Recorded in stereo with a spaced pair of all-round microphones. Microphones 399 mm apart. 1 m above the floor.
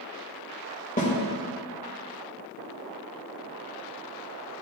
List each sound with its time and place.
1.0 s a snare drum: 20° left (ahead or behind), 1.9 m